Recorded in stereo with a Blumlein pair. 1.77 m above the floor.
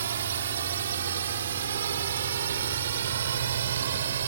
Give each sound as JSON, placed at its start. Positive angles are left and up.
{"t": 0.0, "sound": "a drone", "azimuth_deg": -65}